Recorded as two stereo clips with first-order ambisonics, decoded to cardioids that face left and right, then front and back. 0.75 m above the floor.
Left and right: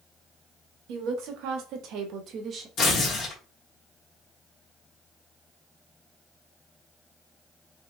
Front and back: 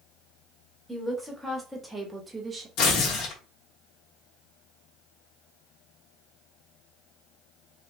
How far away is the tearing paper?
About 1.3 m.